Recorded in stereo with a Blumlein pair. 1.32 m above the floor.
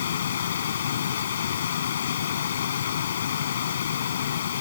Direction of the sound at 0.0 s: 65° left.